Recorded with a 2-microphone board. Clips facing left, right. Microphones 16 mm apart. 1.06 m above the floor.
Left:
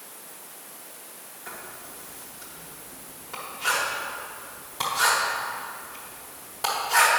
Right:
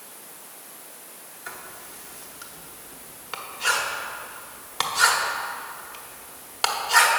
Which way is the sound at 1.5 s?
50° right (ahead or behind).